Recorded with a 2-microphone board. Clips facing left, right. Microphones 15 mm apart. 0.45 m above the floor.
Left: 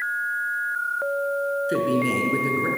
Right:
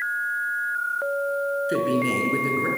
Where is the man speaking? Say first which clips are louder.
Left 1 dB; centre (ahead or behind), 5 m.